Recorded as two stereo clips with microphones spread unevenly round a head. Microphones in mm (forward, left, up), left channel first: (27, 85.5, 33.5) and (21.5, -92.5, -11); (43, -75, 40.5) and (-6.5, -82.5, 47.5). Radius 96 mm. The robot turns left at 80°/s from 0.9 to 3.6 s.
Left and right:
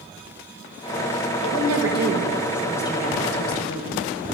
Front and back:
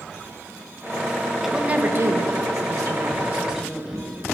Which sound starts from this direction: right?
A woman speaking, at 1.4 s.